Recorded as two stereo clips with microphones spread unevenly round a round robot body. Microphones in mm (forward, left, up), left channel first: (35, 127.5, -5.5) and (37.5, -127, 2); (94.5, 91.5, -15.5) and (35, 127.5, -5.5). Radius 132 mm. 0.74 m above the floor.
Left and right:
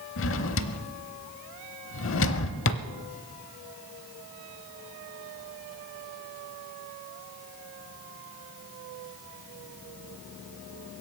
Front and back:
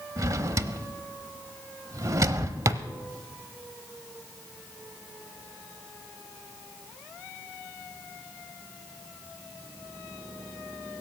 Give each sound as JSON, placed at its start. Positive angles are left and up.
{"t": 0.2, "sound": "a drawer", "azimuth_deg": 130, "distance_m": 0.8}